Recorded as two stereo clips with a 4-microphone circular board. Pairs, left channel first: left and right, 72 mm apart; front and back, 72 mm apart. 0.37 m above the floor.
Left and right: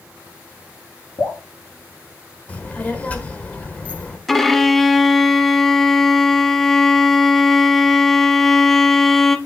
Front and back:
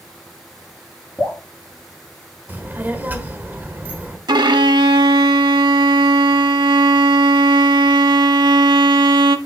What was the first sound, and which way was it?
Dripping, 100° left.